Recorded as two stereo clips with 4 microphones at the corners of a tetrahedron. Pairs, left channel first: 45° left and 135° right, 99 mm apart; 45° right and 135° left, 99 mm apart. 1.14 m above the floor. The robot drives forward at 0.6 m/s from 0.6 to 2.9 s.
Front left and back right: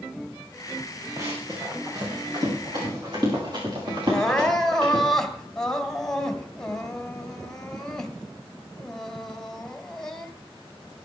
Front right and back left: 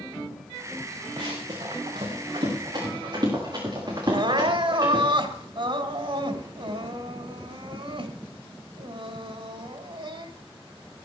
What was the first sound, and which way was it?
Running footsteps, 170° left.